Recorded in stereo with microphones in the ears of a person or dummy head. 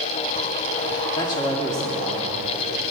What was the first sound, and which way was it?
A man speaking, 30° left (ahead or behind).